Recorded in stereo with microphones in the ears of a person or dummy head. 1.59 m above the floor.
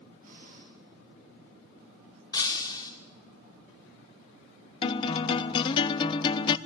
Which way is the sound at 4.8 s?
25° left (ahead or behind).